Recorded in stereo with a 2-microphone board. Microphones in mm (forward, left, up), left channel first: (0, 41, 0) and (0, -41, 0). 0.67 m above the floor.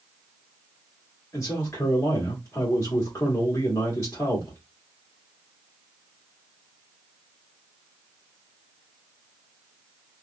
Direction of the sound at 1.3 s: 35° left (ahead or behind).